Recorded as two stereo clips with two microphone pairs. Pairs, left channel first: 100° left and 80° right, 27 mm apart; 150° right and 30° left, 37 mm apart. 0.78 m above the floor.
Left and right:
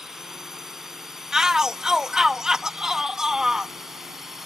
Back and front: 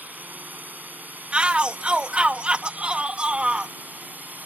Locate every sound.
0.0 s a drone: 5° right
1.3 s a shout: 25° right